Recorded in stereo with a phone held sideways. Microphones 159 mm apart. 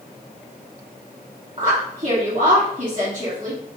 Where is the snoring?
I don't hear snoring.